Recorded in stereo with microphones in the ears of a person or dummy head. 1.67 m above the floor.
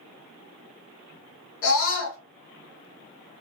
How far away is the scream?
About 1.5 m.